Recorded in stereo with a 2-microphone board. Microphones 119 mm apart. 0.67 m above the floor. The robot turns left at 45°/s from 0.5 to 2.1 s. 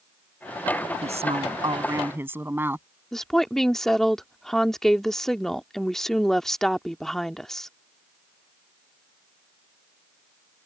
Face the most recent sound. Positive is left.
turn(degrees=5)  # may be behind; listen again after turning